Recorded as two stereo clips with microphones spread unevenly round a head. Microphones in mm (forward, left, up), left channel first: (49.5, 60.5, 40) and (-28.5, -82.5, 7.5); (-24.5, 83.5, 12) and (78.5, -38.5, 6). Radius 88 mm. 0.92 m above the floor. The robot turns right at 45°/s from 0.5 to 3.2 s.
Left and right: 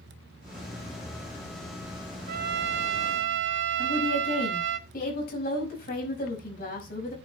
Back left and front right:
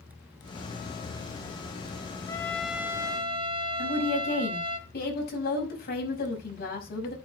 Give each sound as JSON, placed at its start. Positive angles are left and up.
{"t": 2.3, "sound": "a trumpet", "azimuth_deg": -155, "distance_m": 0.9}
{"t": 3.8, "sound": "a woman speaking", "azimuth_deg": 105, "distance_m": 5.5}